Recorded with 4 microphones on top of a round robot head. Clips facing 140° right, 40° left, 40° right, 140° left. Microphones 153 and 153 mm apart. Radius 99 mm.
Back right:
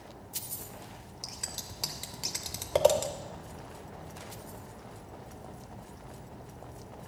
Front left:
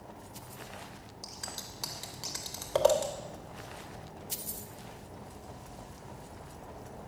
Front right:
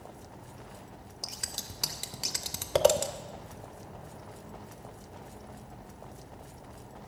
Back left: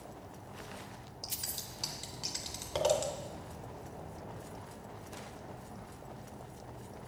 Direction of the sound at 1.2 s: 65° right.